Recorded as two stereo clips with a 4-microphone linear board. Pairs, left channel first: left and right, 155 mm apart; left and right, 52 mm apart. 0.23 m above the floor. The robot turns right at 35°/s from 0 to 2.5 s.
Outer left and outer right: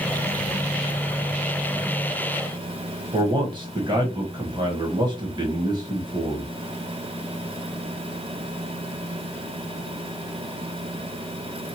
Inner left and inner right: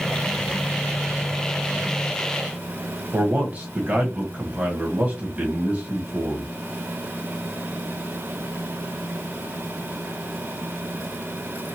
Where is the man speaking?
30° right (ahead or behind), 1.4 m.